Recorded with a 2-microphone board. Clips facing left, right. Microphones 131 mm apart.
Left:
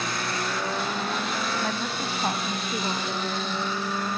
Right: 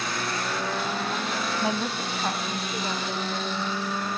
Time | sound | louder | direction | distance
1.6 | a woman speaking | right 2 dB | 15° right (ahead or behind) | 1.0 m